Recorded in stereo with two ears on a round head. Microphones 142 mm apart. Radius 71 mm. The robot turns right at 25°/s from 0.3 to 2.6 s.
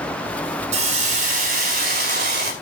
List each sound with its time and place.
0.7 s a hiss: 130° right, 3 m; by 2.5 s 85° right, 3 m